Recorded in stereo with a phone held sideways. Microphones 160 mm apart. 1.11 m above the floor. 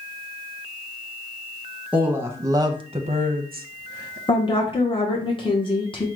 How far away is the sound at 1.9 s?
About 1.0 m.